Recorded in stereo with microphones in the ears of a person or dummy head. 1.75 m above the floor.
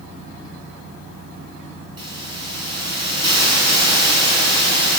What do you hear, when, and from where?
2.0 s a hiss: 25° right (ahead or behind), 8 m